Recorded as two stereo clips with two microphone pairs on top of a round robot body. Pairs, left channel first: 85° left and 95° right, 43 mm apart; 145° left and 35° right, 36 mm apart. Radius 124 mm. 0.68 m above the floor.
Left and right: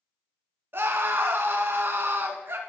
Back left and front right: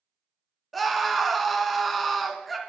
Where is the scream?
125° right, 1.4 m.